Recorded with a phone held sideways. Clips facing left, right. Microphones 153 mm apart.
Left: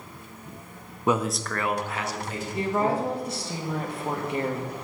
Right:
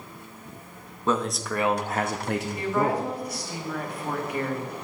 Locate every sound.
1.1 s a man speaking: 15° left (ahead or behind), 0.6 m; by 3.1 s 85° right, 1.0 m
2.5 s a woman speaking: 25° left (ahead or behind), 1.1 m